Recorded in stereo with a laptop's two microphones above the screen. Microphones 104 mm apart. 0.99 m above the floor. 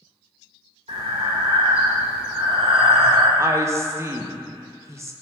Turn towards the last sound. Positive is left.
turn(degrees=-30)  # may be behind; listen again after turning